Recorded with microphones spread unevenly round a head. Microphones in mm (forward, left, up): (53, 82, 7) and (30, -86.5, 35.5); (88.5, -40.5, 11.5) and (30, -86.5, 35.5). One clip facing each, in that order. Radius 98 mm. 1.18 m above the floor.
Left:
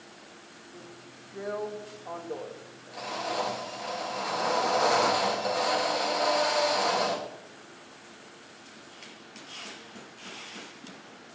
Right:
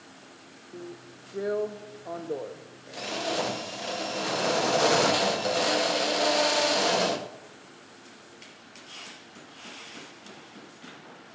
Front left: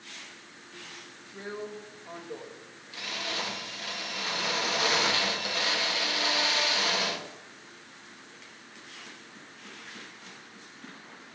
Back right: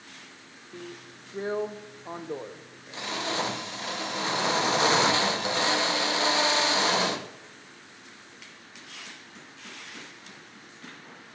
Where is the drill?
135° right, 0.6 m.